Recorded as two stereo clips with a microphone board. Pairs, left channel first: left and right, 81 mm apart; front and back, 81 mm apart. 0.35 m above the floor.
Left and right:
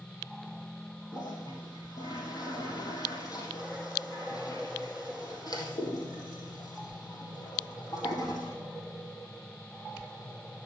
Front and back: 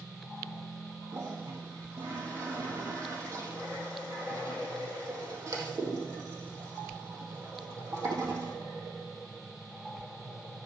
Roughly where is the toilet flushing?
Behind left.